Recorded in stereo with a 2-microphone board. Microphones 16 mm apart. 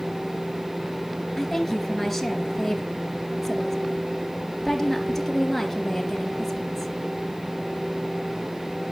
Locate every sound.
1.4 s a woman speaking: centre (ahead or behind), 3 m